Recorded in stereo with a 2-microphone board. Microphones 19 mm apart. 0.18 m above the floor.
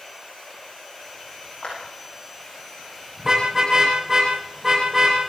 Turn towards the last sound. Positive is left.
turn(degrees=-25)  # may be behind; listen again after turning